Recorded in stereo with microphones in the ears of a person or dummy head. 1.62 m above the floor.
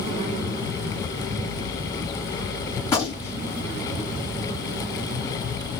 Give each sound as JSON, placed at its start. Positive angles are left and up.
{"t": 2.8, "sound": "a gunshot", "side_deg": 20, "distance_m": 1.8}